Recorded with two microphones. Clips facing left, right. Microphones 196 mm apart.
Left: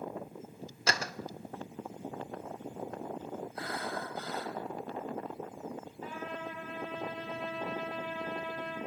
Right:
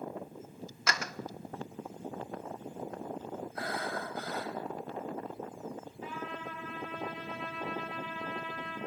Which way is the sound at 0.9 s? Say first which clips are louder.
Left 2 dB; 30° left (ahead or behind).